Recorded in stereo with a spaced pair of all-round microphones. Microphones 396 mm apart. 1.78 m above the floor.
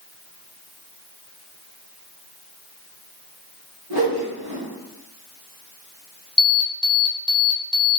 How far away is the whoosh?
About 1.4 m.